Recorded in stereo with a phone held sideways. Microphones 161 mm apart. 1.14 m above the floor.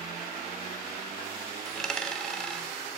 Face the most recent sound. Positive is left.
turn(degrees=5)  # may be behind; listen again after turning